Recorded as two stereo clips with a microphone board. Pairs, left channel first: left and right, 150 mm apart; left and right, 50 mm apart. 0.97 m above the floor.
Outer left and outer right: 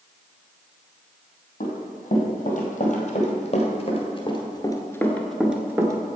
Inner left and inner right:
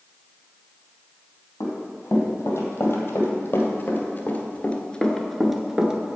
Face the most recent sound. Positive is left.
turn(degrees=-30)  # may be behind; listen again after turning